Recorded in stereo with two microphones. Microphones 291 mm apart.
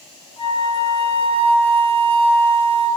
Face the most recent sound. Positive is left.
turn(degrees=20)  # may be behind; listen again after turning